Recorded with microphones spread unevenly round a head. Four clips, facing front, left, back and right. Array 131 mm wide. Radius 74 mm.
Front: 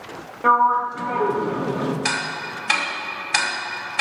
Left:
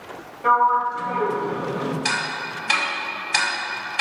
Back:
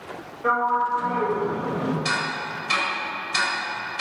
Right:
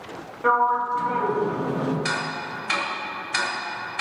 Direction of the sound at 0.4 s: Straight ahead.